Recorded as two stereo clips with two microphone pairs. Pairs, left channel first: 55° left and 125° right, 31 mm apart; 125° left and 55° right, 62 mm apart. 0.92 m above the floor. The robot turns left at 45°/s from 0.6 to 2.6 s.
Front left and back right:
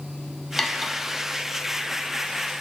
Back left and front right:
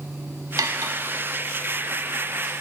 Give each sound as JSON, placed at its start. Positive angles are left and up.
{"t": 0.6, "sound": "cutlery clinking", "azimuth_deg": -30, "distance_m": 0.8}